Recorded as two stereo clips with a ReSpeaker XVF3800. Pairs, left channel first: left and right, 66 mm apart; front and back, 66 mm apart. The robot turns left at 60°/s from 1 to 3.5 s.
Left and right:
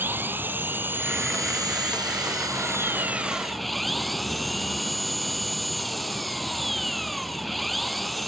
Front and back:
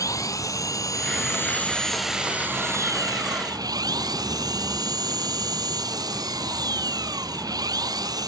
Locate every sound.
0.0 s an engine running: 30° right; by 8.3 s straight behind